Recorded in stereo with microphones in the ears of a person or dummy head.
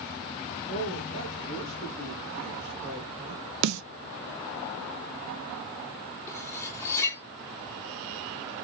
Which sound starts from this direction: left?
A woman speaking, at 0.7 s.